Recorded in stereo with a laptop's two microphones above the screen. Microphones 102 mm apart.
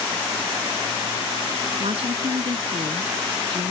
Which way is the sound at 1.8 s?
75° right (ahead or behind).